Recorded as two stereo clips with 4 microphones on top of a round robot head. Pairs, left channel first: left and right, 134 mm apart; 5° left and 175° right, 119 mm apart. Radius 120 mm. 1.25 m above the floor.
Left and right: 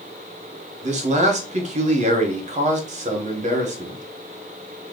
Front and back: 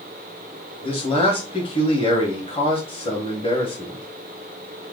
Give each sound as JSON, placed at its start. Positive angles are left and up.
{"t": 0.8, "sound": "a man speaking", "azimuth_deg": -50, "distance_m": 1.1}